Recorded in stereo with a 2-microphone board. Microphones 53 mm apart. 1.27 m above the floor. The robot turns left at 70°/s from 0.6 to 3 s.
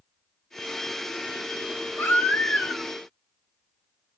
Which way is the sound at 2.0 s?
50° left.